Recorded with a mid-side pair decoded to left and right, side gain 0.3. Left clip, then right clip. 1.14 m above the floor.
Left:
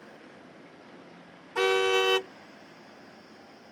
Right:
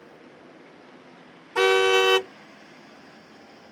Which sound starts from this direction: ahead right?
A car horn, at 1.6 s.